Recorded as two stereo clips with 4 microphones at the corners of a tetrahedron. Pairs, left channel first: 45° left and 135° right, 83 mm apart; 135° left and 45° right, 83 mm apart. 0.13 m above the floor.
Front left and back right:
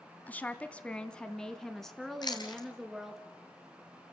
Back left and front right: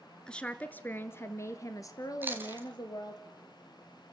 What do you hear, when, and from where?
0.3 s a woman speaking: 75° left, 1.2 m; by 3.2 s 140° left, 2 m
2.2 s chewing: 20° left, 2.5 m